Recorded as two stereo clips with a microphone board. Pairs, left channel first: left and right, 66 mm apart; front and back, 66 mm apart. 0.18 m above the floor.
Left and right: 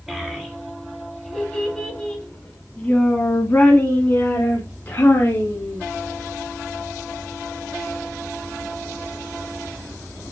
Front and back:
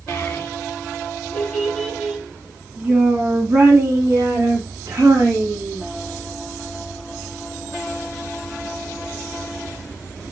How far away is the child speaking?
About 1.4 m.